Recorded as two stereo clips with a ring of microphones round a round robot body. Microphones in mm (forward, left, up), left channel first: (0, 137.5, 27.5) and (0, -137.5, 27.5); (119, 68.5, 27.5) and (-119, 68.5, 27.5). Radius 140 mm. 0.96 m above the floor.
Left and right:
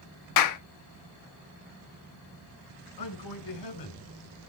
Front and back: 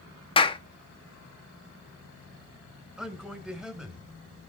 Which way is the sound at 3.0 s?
95° left.